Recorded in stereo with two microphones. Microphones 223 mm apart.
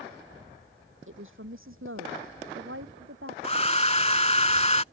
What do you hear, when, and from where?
1.1 s a woman speaking: 70° right (ahead or behind); by 3.3 s 80° right
3.4 s a hair dryer: 30° left (ahead or behind)